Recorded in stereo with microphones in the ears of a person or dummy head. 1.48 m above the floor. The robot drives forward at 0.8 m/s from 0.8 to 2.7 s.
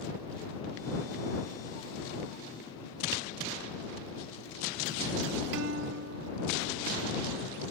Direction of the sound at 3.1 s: 70° right (ahead or behind).